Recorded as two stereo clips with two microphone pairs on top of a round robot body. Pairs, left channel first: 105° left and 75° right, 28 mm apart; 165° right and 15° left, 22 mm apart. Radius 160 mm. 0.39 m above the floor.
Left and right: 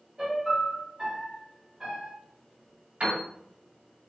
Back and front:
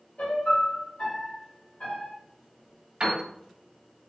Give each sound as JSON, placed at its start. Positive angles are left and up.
{"t": 0.2, "sound": "a piano", "azimuth_deg": -140, "distance_m": 1.3}
{"t": 3.0, "sound": "a piano", "azimuth_deg": -35, "distance_m": 1.6}